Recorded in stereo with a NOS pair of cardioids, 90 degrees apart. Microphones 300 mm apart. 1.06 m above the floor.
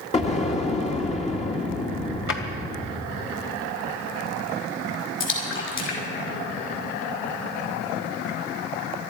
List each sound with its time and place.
0.1 s an explosion: 25° left, 2 m
2.3 s a drawer: 45° left, 2.5 m
5.2 s a splash: 40° left, 6 m